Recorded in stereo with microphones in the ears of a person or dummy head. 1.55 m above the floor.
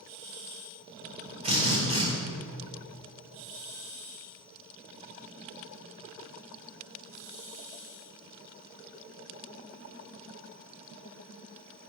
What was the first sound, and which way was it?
A drill, 35° right (ahead or behind).